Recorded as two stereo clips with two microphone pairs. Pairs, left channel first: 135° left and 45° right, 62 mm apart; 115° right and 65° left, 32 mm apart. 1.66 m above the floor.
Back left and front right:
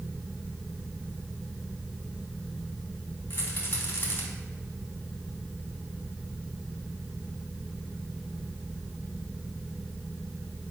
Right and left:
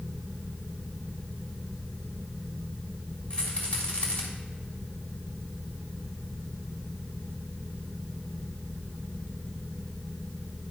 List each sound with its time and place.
3.3 s a rattle: 170° right, 3.5 m